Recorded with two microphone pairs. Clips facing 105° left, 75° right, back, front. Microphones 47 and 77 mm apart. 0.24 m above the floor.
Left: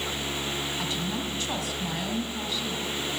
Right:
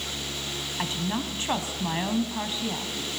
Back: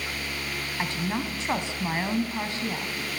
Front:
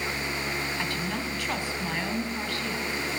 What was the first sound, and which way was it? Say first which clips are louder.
A woman speaking: right 1 dB, back 2 dB; 120° right.